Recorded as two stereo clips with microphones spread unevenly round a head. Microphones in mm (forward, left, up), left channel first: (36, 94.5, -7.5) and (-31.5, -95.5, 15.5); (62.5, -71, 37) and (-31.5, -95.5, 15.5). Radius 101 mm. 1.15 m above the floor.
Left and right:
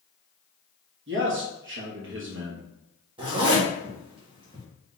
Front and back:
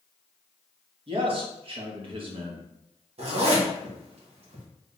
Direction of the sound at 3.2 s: 175° right.